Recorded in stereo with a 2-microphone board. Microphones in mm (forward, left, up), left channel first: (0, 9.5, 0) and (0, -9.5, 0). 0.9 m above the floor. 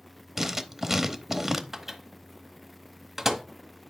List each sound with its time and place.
0.4 s writing: 20° right (ahead or behind), 0.9 m
1.7 s a microwave: 15° right (ahead or behind), 1.4 m